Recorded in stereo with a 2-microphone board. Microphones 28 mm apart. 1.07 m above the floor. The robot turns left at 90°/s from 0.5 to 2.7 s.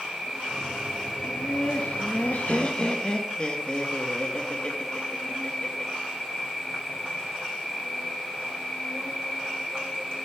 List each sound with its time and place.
0.0 s an insect: 140° right, 5.5 m; by 10.3 s 25° left, 5.5 m
1.2 s laughter: 170° left, 1.3 m; by 5.9 s 40° left, 1.3 m